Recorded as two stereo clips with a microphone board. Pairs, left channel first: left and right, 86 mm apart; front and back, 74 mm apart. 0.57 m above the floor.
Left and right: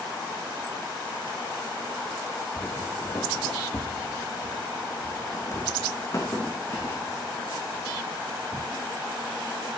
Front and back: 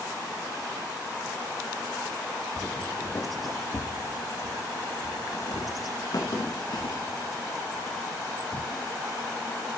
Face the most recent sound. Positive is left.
turn(degrees=30)